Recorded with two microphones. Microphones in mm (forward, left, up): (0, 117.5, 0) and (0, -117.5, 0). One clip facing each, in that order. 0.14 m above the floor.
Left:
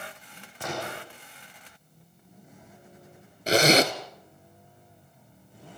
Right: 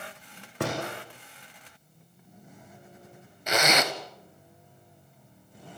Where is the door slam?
70° right (ahead or behind), 8.5 m.